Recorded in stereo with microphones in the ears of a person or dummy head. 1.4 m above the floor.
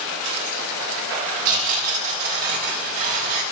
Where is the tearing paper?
45° right (ahead or behind), 3 m.